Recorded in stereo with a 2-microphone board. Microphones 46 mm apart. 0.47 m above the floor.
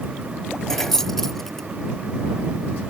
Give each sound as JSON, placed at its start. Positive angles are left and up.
{"t": 0.7, "sound": "keys jangling", "side_deg": 10}